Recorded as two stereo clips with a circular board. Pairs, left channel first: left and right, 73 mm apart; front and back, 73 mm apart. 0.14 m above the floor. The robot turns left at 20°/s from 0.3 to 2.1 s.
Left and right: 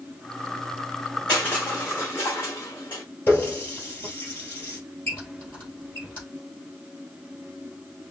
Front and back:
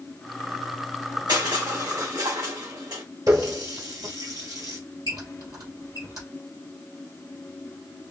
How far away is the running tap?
About 2 m.